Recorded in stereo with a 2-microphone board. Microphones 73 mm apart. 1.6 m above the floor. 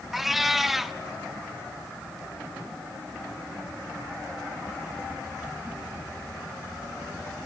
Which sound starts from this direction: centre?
A cat meowing, at 0.1 s.